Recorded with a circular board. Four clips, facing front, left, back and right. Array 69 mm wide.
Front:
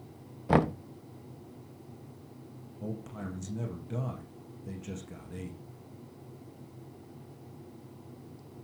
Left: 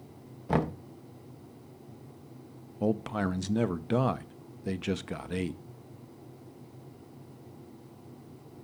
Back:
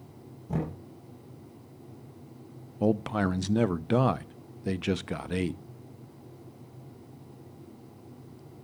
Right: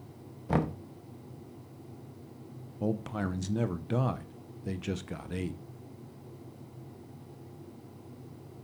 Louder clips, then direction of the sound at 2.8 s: Left 3 dB, back 14 dB; 160° left.